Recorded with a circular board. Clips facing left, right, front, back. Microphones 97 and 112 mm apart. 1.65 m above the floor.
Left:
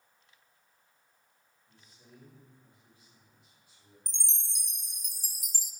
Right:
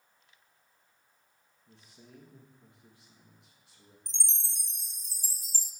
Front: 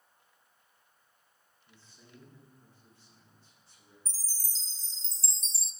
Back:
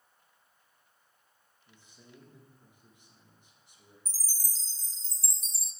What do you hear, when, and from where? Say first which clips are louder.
1.7 s a man speaking: right 4 dB, back 1 dB; 105° right, 3 m
4.1 s a chime: even, back 2 dB; 30° left, 0.6 m